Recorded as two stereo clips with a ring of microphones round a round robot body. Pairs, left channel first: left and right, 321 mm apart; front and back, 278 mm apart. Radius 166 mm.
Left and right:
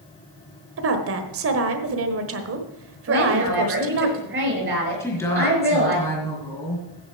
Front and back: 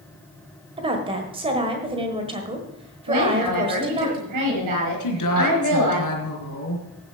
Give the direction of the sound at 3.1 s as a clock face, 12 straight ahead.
5 o'clock.